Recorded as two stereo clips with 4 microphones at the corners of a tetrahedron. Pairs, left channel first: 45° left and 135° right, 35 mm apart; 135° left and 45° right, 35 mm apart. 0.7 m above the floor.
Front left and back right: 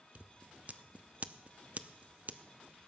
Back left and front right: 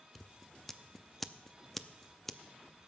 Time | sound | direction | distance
0.1 | scissors | 145° right | 0.5 m